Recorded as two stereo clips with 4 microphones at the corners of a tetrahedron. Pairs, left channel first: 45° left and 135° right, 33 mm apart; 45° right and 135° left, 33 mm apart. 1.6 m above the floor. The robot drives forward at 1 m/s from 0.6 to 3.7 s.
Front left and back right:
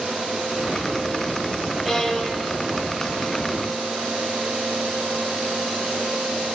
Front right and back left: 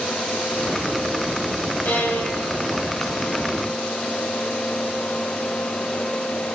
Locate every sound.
1.9 s a violin: 40° right, 5.5 m; by 3.6 s 55° right, 4.5 m